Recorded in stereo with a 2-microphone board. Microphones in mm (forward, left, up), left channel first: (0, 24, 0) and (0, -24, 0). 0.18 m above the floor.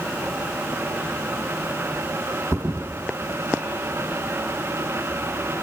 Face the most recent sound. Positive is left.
turn(degrees=-85)